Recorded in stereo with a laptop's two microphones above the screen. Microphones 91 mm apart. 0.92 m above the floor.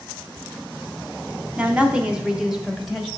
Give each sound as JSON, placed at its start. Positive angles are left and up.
{"t": 1.6, "sound": "a woman speaking", "side_deg": -15, "distance_m": 0.7}